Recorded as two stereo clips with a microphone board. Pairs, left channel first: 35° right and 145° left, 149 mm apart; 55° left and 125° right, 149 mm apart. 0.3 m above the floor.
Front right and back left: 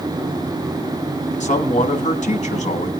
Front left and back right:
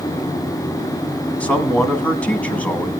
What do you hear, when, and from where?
1.4 s a man speaking: 25° right, 1.6 m